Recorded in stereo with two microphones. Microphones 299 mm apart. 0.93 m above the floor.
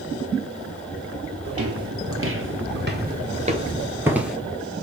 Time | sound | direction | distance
1.4 | footsteps | 50° right (ahead or behind) | 1.5 m